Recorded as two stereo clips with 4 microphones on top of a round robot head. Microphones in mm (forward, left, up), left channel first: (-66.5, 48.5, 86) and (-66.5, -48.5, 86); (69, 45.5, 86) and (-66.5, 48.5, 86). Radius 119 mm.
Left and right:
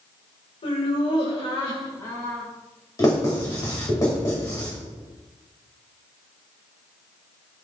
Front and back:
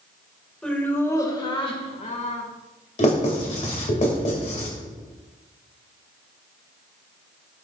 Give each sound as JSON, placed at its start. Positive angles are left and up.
{"t": 0.6, "sound": "laughter", "azimuth_deg": 80, "distance_m": 2.0}
{"t": 3.0, "sound": "writing", "azimuth_deg": 30, "distance_m": 2.5}